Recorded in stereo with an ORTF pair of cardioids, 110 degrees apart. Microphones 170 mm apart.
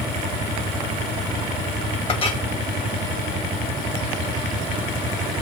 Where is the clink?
30° left, 2 m.